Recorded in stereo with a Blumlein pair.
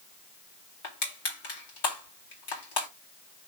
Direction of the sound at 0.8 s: 50° left.